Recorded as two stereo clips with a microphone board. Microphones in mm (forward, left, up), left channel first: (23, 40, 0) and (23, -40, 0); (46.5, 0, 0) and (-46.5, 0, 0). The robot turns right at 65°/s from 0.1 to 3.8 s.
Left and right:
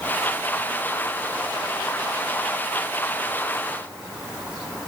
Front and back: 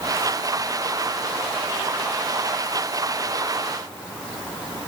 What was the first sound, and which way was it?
Only background noise.